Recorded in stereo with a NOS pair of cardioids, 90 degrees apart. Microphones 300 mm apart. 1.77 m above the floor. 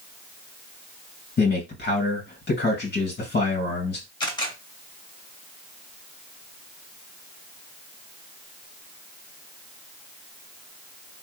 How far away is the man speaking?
About 2 m.